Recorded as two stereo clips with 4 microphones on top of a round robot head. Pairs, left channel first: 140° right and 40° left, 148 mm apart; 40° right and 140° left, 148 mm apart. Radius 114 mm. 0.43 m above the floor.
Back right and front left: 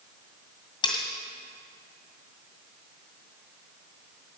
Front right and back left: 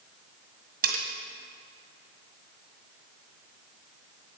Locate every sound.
0.8 s cutlery clinking: 160° left, 1.9 m